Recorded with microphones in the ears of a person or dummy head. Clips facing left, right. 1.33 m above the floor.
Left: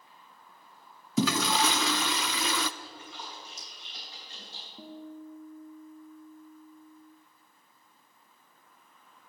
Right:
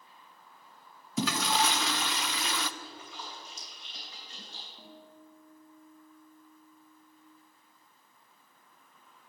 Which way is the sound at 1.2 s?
65° left (ahead or behind).